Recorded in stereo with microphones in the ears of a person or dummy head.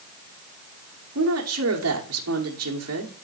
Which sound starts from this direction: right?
A woman speaking, at 1.1 s.